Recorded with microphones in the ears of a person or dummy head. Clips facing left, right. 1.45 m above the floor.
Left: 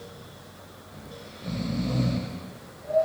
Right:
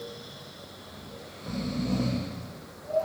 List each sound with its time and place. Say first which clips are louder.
0.8 s snoring: left 3 dB; 20° left (ahead or behind), 0.5 m